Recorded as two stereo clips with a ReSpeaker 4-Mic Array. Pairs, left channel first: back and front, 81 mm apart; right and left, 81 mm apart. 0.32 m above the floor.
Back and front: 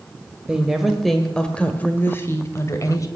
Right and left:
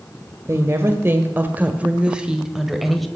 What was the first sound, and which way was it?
A woman speaking, 70° left.